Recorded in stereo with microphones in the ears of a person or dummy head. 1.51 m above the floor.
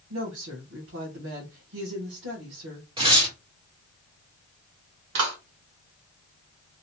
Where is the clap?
65° right (ahead or behind), 1.3 m.